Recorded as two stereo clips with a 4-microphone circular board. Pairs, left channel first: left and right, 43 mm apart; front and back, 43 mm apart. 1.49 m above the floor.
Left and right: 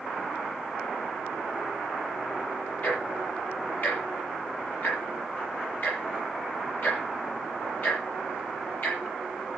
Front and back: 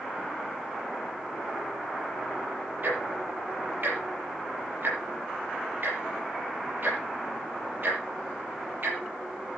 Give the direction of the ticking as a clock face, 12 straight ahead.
8 o'clock.